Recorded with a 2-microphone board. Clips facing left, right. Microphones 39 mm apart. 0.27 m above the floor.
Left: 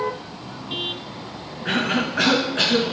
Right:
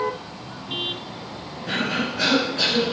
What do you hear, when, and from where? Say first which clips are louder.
1.6 s a cough: left 3 dB; 50° left (ahead or behind), 2.5 m